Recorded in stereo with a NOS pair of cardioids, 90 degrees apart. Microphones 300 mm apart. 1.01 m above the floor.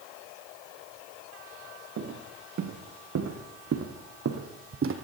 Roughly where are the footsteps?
Right.